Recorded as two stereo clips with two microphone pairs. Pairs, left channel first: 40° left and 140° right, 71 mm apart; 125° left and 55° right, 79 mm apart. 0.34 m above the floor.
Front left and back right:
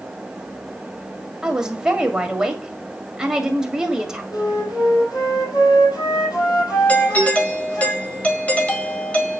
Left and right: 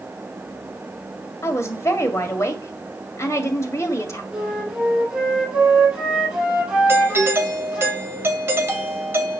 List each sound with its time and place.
1.4 s a woman speaking: 145° left, 1.9 m
4.3 s a flute: 15° left, 6 m
6.9 s a doorbell: 15° right, 1.8 m